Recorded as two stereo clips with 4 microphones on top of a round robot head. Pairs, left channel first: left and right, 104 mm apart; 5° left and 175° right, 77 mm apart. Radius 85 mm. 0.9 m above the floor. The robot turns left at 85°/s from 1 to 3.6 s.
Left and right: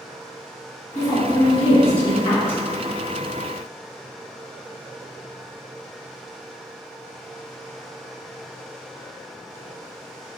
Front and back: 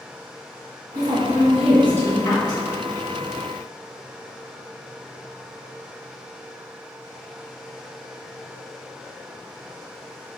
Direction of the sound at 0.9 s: 150° left.